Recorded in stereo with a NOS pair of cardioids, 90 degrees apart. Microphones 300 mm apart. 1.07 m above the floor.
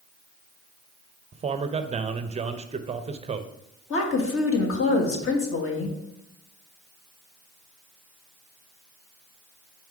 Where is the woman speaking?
45° left, 1.6 m.